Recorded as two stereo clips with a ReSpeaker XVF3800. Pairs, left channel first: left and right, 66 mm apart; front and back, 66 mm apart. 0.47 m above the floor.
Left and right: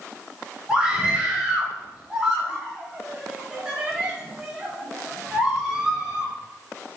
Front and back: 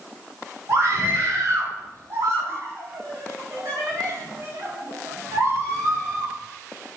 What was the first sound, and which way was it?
A scream, 165° right.